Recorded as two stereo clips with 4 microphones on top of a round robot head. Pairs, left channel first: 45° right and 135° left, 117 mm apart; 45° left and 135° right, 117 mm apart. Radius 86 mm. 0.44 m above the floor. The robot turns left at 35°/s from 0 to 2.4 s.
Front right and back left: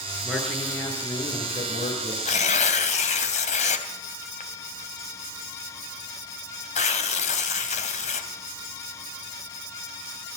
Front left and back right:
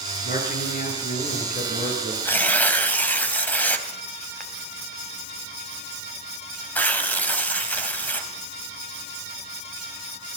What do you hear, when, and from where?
0.2 s a man speaking: 50° left, 10 m; by 2.1 s 20° right, 10 m
2.2 s tearing paper: 25° right, 3.5 m; by 8.3 s 30° right, 3.5 m